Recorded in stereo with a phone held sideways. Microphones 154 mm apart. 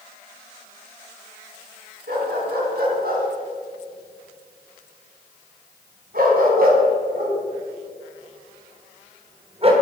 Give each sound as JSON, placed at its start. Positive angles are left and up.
{"t": 2.1, "sound": "a dog barking", "side_deg": -75, "distance_m": 5.5}